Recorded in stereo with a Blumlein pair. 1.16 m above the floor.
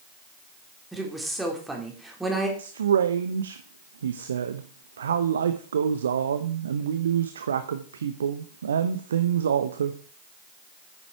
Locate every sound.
0.9 s a woman speaking: 5° right, 3 m
2.6 s a man speaking: 65° right, 0.8 m